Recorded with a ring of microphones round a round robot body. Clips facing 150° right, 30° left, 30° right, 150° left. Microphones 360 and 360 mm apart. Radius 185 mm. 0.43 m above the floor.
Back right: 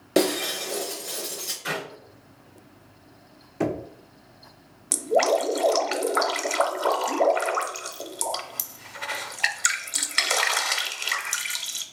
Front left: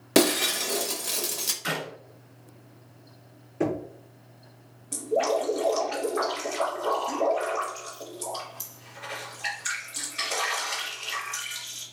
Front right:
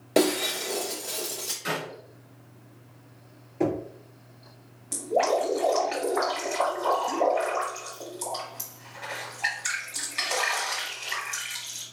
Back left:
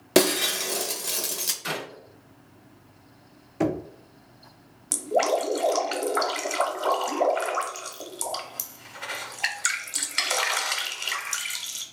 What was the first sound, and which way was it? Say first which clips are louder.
Breaking glass: even, back left 1 dB; 95° left.